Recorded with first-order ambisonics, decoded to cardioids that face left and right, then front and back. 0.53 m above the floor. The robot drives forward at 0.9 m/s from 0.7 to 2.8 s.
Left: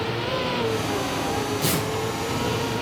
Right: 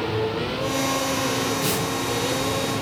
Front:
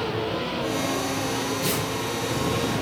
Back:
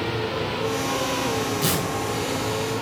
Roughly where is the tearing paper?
Behind.